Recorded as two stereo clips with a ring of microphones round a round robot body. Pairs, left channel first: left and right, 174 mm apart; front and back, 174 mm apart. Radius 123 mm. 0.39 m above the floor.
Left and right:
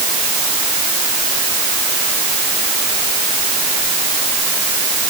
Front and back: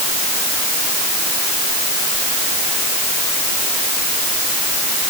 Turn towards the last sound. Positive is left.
No sound to turn to.